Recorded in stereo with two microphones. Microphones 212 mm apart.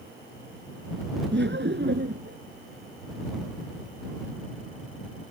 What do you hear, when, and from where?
1.3 s laughter: 55° right (ahead or behind)